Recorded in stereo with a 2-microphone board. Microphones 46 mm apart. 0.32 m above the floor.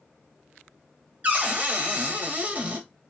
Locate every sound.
1.2 s a cupboard door: 30° right (ahead or behind), 0.8 m